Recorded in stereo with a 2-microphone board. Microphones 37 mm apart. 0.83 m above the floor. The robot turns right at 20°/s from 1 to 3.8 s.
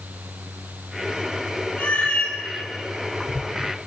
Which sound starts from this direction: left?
A cat meowing, at 1.8 s.